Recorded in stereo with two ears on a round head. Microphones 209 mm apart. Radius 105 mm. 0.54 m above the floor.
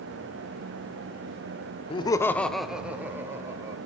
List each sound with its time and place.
1.9 s laughter: 25° left (ahead or behind), 0.7 m; by 3.8 s 15° right (ahead or behind), 1.8 m